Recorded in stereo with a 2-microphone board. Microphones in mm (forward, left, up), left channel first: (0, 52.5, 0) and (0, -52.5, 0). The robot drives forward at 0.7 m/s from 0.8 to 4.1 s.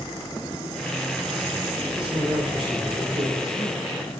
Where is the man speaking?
65° right (ahead or behind), 6 m; by 3.8 s 55° right (ahead or behind), 6.5 m.